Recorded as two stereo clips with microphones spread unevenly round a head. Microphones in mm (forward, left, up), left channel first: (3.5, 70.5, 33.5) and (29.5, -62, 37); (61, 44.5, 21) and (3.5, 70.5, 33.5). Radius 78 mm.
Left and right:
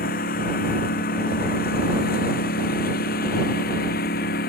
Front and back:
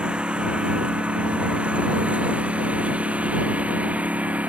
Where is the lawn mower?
85° left; by 4.5 s 90° left.